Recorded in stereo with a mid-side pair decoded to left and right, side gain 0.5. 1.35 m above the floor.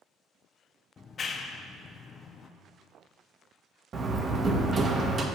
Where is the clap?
40° left, 0.6 m.